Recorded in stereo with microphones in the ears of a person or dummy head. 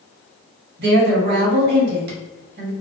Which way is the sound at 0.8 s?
55° right (ahead or behind).